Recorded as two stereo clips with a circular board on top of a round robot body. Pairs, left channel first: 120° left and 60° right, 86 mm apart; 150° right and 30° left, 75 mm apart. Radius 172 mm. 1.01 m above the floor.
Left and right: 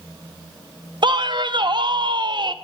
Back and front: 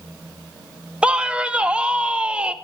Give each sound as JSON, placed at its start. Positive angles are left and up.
{"t": 1.0, "sound": "a man speaking", "azimuth_deg": -45, "distance_m": 0.8}